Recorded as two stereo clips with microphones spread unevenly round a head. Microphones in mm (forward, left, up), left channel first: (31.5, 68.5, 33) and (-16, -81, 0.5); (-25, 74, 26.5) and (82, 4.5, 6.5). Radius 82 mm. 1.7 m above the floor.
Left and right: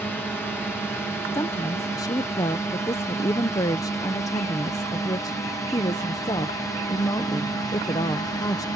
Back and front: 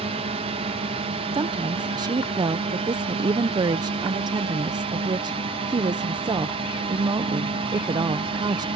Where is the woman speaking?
20° left.